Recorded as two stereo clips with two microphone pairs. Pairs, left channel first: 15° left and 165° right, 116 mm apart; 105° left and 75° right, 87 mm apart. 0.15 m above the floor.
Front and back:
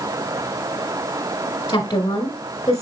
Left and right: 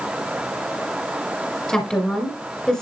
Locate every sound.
1.7 s a woman speaking: 30° left, 1.5 m